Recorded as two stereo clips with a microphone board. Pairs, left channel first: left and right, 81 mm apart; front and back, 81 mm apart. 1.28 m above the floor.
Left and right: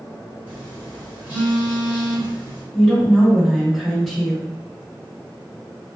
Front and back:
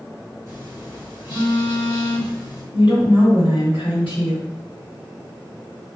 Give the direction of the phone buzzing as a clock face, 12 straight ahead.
1 o'clock.